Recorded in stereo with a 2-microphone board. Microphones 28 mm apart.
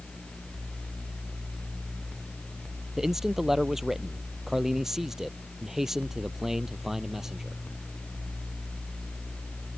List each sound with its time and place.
3.0 s a man speaking: 15° right (ahead or behind)